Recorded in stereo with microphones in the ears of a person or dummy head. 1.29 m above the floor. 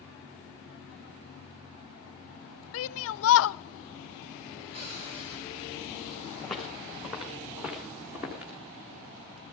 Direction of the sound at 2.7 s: 75° left (ahead or behind).